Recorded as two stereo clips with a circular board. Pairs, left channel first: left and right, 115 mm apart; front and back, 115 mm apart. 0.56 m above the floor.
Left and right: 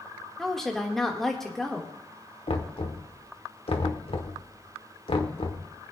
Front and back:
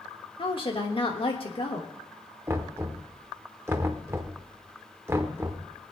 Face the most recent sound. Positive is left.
turn(degrees=115)